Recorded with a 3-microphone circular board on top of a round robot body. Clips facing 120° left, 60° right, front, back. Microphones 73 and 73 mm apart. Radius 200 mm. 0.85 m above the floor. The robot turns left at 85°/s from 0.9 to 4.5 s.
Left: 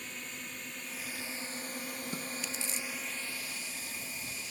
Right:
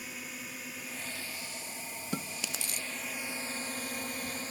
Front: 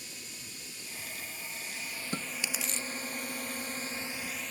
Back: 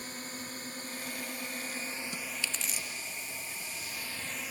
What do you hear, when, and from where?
0.0 s a drone: 145° right; by 4.5 s 100° right
2.1 s chewing: 45° right; by 2.9 s 110° right